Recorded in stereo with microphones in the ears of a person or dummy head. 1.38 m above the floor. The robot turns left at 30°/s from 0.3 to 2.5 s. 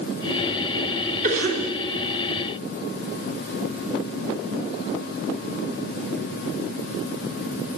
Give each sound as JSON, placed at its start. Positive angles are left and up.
{"t": 1.2, "sound": "a cough", "side_deg": -45, "distance_m": 3.5}